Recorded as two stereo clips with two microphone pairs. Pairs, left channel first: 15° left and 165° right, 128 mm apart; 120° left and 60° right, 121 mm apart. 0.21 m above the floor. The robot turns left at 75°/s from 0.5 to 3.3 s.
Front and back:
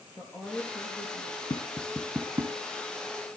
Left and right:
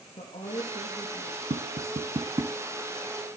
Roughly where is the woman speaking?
Left.